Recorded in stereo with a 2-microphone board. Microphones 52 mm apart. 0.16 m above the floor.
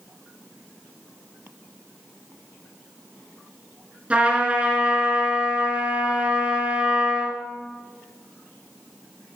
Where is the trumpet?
25° right (ahead or behind), 2 m.